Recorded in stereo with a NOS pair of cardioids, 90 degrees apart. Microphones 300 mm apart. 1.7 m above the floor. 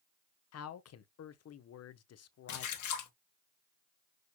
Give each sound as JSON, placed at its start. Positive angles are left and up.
{"t": 0.5, "sound": "a man speaking", "azimuth_deg": 50, "distance_m": 0.9}
{"t": 2.5, "sound": "a splash", "azimuth_deg": 65, "distance_m": 1.6}